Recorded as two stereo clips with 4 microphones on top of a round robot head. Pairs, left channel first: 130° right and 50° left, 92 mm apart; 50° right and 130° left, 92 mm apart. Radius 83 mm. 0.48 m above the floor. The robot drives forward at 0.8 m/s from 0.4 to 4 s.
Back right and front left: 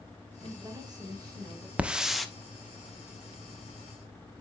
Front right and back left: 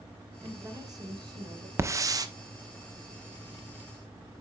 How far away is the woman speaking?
About 2.0 m.